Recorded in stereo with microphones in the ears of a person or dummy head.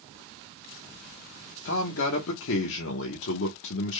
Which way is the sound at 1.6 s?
70° left (ahead or behind).